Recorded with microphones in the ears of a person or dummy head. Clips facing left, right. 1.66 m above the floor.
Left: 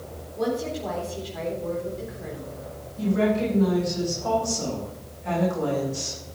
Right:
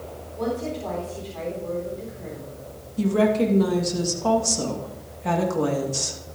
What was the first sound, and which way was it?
A woman speaking, 5° left (ahead or behind).